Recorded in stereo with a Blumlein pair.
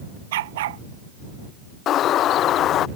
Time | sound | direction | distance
0.3 | a dog barking | 55° right | ?
1.9 | a bird | 30° left | ?